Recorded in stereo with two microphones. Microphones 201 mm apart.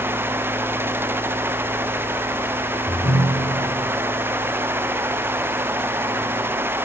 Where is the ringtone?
45° left (ahead or behind), 3.5 m.